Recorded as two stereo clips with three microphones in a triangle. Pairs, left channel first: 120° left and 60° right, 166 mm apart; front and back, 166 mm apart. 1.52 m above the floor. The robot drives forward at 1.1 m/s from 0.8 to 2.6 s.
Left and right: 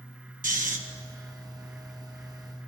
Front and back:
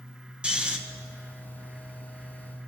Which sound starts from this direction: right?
Snoring, at 0.4 s.